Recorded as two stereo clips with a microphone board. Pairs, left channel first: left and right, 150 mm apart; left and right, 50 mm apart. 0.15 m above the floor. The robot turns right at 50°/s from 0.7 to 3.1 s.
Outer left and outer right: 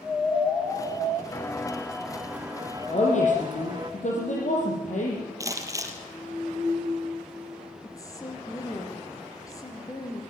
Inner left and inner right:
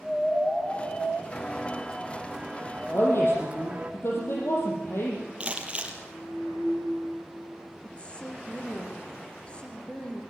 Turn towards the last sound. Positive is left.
turn(degrees=25)  # may be behind; listen again after turning